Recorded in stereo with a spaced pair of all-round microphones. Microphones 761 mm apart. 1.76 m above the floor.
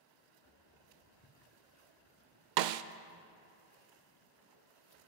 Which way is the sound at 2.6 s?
80° right.